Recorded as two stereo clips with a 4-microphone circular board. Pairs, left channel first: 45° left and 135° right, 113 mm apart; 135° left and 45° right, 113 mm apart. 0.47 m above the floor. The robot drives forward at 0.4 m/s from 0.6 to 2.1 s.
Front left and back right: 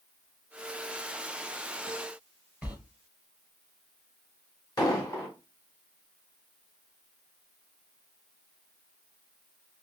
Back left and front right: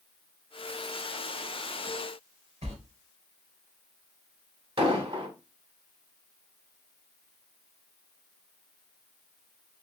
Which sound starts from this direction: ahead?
An explosion, at 4.8 s.